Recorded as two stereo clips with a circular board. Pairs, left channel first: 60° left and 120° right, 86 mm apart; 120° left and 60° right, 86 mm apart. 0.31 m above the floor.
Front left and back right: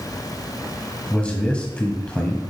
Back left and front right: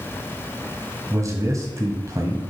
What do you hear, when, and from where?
1.1 s a man speaking: 15° right, 1.5 m